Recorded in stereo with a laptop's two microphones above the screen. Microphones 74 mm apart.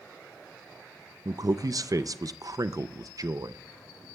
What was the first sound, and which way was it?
A man speaking, 50° right (ahead or behind).